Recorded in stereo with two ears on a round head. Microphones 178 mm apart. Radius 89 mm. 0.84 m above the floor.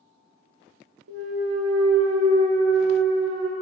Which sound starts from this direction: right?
A clunk, at 1.1 s.